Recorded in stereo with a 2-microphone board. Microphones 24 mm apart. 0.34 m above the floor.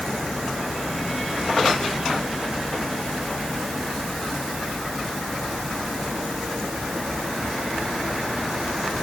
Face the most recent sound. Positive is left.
No sound to turn to.